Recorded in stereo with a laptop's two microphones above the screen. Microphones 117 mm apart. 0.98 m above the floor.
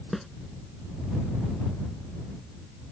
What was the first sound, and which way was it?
A snare drum, centre (ahead or behind).